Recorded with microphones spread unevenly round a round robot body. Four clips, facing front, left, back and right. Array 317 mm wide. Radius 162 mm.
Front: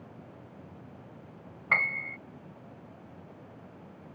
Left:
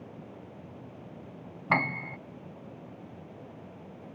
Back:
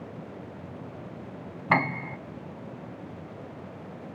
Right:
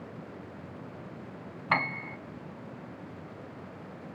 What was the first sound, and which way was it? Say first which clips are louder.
A piano: left 1 dB, back 7 dB; 160° left.